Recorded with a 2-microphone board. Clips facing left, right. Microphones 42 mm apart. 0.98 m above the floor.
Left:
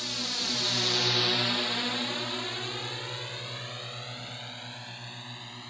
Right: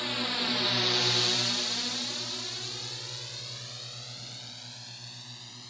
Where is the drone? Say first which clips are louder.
Right 3 dB; 25° right (ahead or behind); by 5.7 s 30° left (ahead or behind).